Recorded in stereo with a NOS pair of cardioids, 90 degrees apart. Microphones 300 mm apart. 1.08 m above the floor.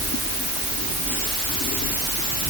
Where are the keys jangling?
I don't hear keys jangling.